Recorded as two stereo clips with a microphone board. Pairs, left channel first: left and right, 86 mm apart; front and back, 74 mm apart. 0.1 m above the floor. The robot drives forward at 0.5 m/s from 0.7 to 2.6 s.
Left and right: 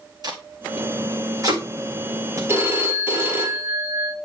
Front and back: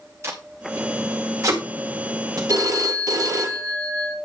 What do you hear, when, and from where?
0.2 s tape being pulled: 125° right, 1.9 m; by 2.4 s 145° right, 2.5 m
2.5 s a phone ringing: 150° right, 1.7 m